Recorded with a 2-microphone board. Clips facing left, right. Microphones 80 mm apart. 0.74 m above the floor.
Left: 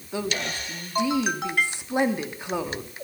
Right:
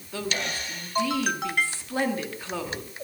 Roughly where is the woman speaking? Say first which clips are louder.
Left 2 dB; centre.